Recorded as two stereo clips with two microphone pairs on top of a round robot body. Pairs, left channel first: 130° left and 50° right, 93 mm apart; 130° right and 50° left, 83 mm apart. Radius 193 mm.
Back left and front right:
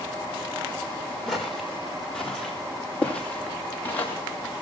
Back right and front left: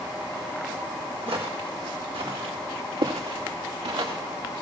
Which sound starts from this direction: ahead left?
Footsteps, at 1.3 s.